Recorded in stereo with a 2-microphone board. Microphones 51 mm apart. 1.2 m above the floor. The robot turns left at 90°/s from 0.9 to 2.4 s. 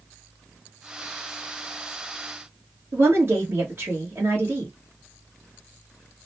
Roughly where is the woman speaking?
Right.